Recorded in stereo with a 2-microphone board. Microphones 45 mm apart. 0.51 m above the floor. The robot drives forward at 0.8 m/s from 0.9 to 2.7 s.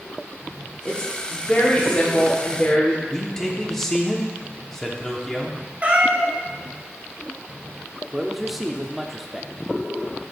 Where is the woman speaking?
30° left (ahead or behind), 1.3 m; by 3.0 s 20° left (ahead or behind), 1.6 m.